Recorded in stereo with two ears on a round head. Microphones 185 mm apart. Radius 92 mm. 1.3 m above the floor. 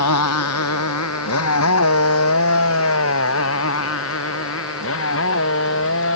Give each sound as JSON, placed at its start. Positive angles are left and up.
{"t": 0.0, "sound": "a motorcycle", "side_deg": 85}